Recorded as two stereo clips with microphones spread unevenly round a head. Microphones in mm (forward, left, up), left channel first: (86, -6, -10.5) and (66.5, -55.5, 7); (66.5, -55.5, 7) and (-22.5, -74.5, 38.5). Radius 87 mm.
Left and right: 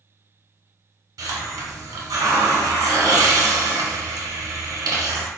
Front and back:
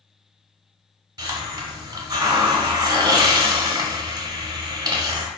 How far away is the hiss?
About 1.1 m.